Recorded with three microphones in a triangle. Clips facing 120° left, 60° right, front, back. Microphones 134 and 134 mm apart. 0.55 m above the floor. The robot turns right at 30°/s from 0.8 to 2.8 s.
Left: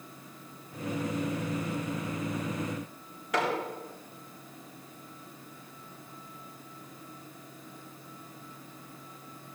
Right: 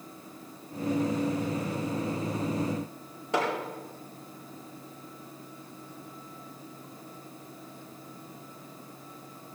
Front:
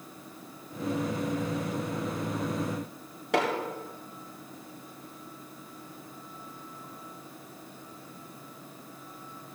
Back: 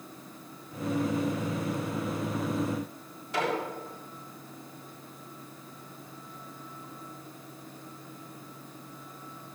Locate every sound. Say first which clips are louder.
3.3 s hammering: right 1 dB, front 3 dB; straight ahead, 4.5 m